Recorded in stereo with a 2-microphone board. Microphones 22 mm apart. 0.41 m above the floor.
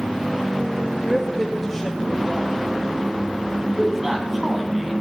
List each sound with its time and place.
1.0 s a woman speaking: 10° left (ahead or behind), 1.4 m
3.7 s a man speaking: 15° right (ahead or behind), 3 m